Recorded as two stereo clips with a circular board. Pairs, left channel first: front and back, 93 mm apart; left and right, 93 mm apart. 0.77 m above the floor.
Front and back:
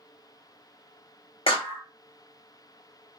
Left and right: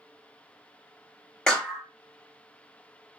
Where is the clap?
10° left, 0.7 m.